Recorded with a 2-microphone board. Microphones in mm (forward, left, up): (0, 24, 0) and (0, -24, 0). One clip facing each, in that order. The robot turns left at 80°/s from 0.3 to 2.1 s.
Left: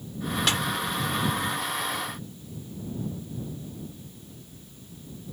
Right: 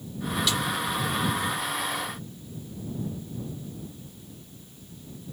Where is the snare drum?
50° left (ahead or behind); by 0.6 s 40° left (ahead or behind).